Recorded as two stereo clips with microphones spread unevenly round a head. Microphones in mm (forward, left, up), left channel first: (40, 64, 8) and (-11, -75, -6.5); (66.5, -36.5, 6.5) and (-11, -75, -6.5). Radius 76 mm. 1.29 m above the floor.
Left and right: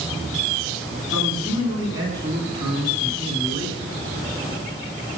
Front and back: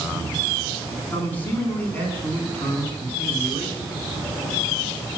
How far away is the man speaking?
About 9.5 m.